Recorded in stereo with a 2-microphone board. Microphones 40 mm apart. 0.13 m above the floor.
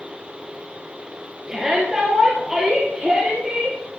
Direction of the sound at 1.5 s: 15° right (ahead or behind).